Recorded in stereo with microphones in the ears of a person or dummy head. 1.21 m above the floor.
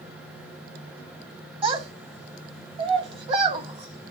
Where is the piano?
No piano in this recording.